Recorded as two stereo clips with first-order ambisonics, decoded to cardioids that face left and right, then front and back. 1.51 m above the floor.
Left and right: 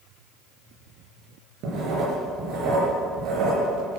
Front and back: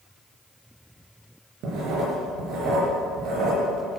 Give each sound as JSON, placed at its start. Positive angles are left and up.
{"t": 1.6, "sound": "writing", "azimuth_deg": -135, "distance_m": 5.0}